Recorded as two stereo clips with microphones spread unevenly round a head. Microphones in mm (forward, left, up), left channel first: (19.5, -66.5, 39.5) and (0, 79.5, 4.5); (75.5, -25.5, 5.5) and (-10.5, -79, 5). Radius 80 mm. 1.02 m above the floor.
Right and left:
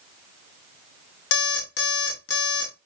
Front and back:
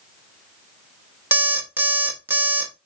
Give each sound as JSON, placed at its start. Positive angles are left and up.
{"t": 1.3, "sound": "an alarm clock", "azimuth_deg": -75, "distance_m": 1.2}